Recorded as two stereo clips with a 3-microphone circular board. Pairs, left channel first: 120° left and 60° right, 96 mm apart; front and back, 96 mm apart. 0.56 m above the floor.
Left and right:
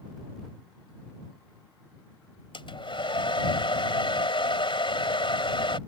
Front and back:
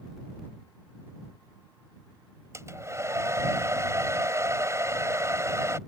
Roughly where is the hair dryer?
Behind left.